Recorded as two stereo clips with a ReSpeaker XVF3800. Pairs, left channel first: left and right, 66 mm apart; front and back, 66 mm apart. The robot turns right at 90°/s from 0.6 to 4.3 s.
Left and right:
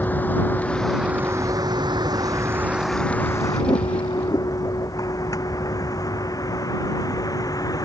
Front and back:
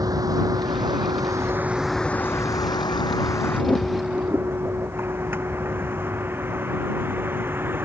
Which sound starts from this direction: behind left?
A vehicle, at 0.0 s.